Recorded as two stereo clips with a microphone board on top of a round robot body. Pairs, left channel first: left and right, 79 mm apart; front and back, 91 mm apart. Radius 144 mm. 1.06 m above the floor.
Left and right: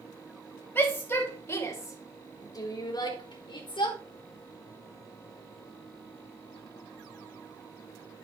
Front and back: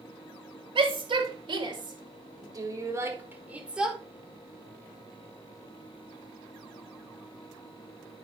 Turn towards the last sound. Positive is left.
turn(degrees=95)